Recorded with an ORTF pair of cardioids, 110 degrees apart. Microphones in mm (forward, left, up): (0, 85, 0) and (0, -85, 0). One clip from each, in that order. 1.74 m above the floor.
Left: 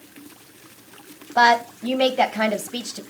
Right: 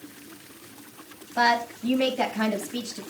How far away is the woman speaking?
About 1.5 m.